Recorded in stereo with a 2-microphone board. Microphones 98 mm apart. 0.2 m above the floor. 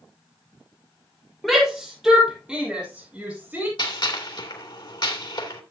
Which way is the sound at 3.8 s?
50° left (ahead or behind).